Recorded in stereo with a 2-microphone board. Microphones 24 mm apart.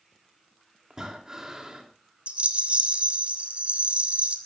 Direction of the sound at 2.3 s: 70° right (ahead or behind).